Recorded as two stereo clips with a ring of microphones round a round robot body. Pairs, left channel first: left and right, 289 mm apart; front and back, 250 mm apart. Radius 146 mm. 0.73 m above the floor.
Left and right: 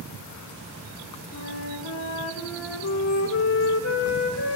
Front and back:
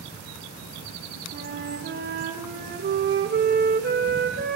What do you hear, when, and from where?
1.3 s a flute: 130° left, 1.8 m